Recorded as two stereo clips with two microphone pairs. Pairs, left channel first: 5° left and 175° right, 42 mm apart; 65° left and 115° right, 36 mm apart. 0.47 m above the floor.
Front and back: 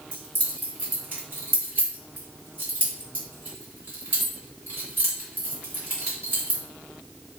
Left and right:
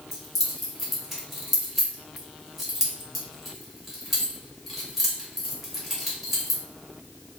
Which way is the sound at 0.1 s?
155° left.